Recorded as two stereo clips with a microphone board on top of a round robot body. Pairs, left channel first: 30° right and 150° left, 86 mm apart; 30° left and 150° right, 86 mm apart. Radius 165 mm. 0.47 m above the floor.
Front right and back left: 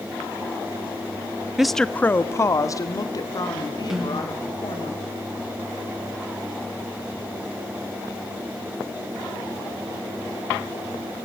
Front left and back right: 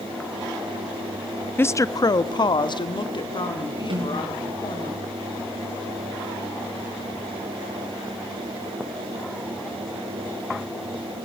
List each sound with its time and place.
1.6 s a woman speaking: 70° left, 0.7 m; by 4.9 s 5° left, 3 m
3.9 s a snare drum: 125° right, 6.5 m